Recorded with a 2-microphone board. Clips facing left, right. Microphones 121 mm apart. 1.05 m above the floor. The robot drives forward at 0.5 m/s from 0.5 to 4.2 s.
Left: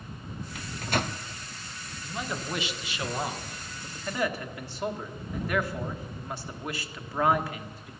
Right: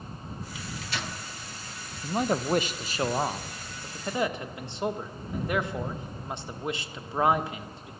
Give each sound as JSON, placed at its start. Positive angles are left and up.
{"t": 0.6, "sound": "a microwave", "side_deg": 55, "distance_m": 0.7}
{"t": 2.0, "sound": "a man speaking", "side_deg": -45, "distance_m": 0.6}